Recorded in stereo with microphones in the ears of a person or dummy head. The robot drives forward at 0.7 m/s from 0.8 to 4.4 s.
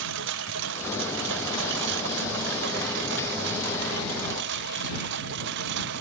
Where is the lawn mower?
65° right (ahead or behind).